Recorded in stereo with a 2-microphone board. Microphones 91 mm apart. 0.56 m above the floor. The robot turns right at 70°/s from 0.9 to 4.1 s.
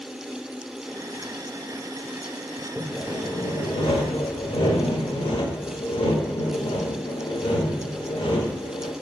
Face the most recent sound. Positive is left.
turn(degrees=100)